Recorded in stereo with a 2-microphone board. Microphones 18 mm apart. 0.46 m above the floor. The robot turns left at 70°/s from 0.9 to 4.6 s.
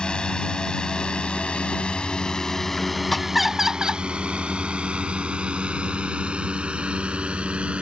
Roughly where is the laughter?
Ahead.